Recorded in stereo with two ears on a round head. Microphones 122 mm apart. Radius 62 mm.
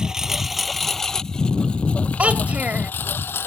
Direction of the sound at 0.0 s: 5° right (ahead or behind).